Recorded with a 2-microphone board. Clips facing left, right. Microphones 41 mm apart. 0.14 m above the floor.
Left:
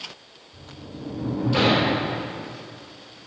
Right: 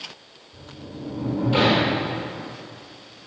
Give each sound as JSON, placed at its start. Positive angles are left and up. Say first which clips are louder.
{"t": 0.5, "sound": "a sliding door", "louder": "right 1 dB", "side_deg": -25, "distance_m": 3.0}